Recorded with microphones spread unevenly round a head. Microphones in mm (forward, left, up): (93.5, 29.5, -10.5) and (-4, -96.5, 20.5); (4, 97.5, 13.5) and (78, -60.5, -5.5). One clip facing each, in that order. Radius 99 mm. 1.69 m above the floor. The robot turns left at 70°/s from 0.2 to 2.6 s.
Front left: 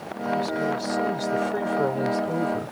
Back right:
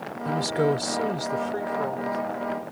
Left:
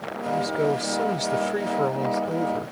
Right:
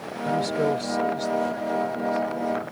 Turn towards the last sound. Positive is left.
turn(degrees=60)